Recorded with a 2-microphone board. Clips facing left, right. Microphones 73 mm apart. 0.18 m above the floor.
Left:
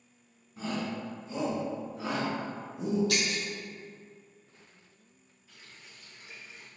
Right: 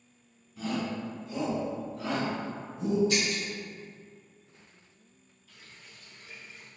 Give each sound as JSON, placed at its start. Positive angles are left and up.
{"t": 0.6, "sound": "a shout", "side_deg": 35, "distance_m": 1.4}
{"t": 3.1, "sound": "breaking glass", "side_deg": 75, "distance_m": 1.7}
{"t": 5.5, "sound": "a running tap", "side_deg": 20, "distance_m": 1.6}